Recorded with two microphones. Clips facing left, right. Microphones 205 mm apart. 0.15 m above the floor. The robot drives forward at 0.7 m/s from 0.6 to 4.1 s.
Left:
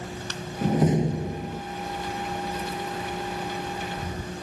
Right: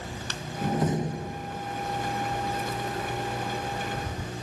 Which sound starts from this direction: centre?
A door slam, at 0.6 s.